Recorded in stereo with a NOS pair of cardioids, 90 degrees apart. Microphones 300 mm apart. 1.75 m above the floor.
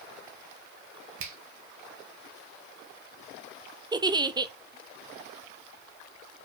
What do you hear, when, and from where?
1.2 s a finger snap: 45° right, 1.6 m
3.9 s a giggle: 15° right, 0.7 m